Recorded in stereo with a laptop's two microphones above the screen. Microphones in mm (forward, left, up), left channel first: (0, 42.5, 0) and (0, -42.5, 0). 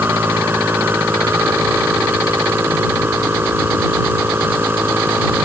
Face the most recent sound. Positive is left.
turn(degrees=-25)  # may be behind; listen again after turning